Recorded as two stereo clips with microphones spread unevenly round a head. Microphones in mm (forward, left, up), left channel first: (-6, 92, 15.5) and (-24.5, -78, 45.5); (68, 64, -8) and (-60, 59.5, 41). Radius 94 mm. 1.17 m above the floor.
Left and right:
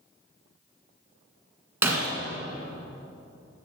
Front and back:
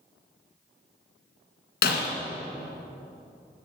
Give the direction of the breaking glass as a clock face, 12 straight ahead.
1 o'clock.